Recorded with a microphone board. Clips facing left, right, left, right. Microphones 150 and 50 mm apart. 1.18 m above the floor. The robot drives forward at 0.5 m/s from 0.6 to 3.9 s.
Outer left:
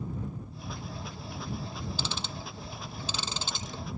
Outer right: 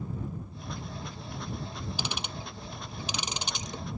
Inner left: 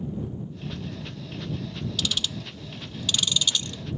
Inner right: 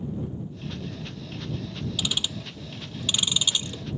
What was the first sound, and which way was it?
Ticking, 15° right (ahead or behind).